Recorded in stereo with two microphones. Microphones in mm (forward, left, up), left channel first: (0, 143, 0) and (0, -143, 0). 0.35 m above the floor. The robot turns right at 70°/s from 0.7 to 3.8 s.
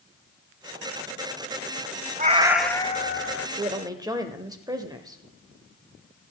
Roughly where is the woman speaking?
Right.